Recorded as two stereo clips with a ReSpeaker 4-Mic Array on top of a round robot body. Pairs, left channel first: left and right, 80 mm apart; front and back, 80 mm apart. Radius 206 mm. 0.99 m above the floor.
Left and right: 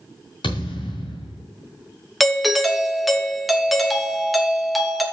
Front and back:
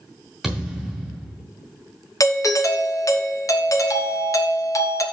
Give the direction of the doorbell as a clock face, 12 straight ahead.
12 o'clock.